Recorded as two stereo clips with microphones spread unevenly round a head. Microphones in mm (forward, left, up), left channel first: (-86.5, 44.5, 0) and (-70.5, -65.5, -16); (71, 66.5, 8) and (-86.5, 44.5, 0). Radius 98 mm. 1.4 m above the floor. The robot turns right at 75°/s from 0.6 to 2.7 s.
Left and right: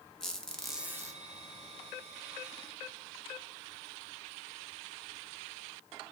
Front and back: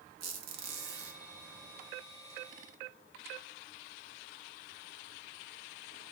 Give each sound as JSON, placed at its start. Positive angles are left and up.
{"t": 0.2, "sound": "a squeak", "azimuth_deg": 175, "distance_m": 1.0}